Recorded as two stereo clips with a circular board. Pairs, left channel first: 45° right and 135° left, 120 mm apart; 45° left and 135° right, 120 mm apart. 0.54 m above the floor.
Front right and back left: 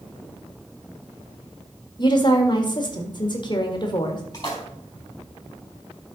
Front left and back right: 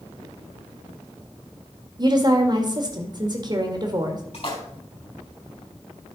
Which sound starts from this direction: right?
A woman speaking, at 2.0 s.